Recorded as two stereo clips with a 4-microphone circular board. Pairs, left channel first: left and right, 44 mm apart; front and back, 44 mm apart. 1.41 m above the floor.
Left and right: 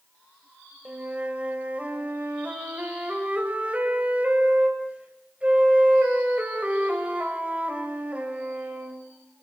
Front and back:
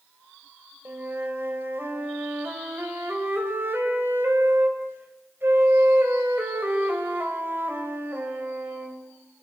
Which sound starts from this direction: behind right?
A flute, at 0.8 s.